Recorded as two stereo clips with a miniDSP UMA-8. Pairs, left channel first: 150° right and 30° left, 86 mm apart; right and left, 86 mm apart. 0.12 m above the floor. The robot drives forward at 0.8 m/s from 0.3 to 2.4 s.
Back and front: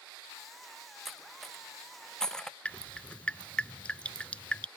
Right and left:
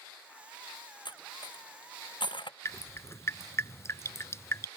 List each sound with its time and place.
1.1 s cutlery clinking: 60° right; by 2.5 s 70° right
2.6 s dripping: 85° right